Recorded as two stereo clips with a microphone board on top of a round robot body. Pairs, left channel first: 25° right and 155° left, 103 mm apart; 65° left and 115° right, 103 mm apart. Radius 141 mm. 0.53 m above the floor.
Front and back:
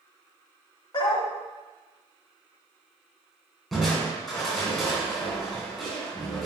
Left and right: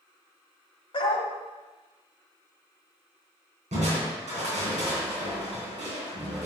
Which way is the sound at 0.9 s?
25° left.